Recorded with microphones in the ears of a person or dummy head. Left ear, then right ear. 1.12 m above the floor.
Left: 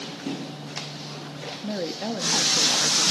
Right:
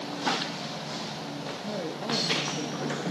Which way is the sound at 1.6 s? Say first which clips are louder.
Left 4 dB; 40° left (ahead or behind).